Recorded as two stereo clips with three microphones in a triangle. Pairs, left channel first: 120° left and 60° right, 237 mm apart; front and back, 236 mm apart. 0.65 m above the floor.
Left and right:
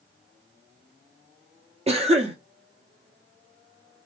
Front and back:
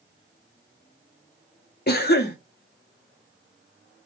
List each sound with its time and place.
1.9 s a cough: 5° right, 0.7 m